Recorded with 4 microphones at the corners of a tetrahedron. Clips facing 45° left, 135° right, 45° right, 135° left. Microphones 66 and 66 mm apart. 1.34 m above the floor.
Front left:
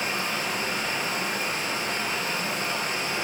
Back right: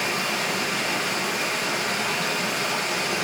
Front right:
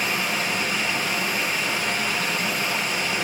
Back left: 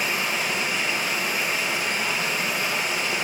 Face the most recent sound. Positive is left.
turn(degrees=-135)